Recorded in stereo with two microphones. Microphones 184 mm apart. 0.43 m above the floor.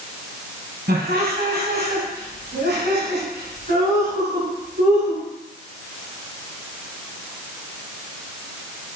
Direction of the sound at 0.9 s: 65° right (ahead or behind).